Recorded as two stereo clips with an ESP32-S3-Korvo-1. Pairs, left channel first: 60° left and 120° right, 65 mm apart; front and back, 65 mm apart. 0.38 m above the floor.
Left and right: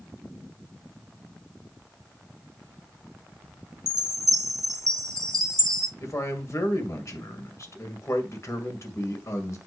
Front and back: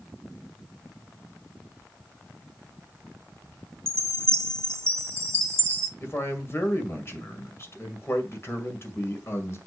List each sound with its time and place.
3.9 s a chime: 135° right, 1.3 m
6.0 s a man speaking: 40° left, 2 m